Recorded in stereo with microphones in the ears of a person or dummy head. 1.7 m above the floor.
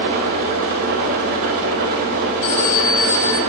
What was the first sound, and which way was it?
An engine running, 35° right (ahead or behind).